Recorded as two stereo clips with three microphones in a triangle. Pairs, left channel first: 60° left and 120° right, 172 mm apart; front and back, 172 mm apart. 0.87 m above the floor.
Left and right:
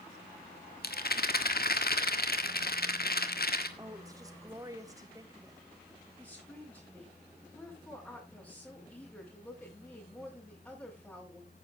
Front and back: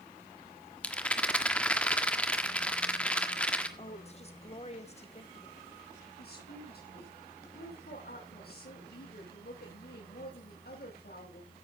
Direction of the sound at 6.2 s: 20° right.